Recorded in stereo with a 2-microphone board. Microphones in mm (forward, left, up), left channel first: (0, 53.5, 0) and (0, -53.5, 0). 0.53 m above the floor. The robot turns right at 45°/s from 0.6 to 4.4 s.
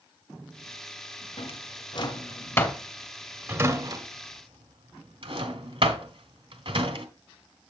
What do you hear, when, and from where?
1.4 s a drawer: 70° left (ahead or behind), 1.6 m; by 7.0 s 55° right (ahead or behind), 1.6 m